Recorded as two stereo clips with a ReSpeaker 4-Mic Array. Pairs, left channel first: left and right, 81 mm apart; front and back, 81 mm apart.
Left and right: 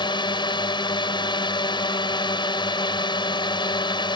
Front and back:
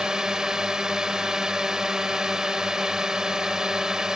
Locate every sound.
0.0 s a drone: 100° left